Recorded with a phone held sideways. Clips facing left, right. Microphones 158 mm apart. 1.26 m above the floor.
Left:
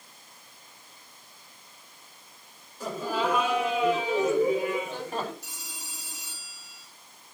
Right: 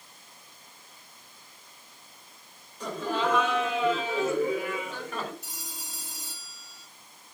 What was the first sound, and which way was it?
Laughter, 5° left (ahead or behind).